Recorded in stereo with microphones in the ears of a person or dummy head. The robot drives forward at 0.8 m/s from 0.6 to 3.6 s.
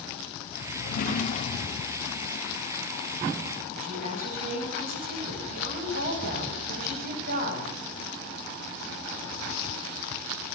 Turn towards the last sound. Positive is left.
turn(degrees=-45)  # may be behind; listen again after turning